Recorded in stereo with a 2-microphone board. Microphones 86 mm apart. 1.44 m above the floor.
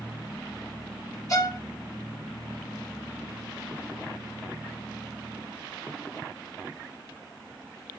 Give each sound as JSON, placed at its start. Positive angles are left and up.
{"t": 1.3, "sound": "a violin", "side_deg": 40, "distance_m": 1.4}